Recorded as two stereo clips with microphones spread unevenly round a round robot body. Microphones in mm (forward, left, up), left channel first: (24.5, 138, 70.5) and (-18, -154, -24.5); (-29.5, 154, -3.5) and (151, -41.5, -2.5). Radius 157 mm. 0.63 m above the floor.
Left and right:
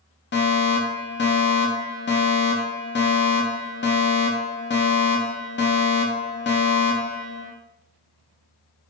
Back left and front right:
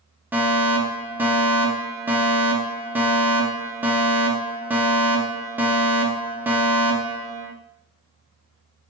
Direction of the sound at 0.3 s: 30° left.